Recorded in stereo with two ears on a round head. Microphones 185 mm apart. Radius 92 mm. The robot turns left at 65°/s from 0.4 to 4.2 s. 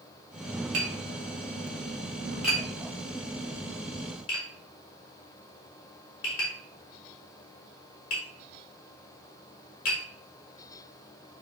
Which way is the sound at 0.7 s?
65° right (ahead or behind).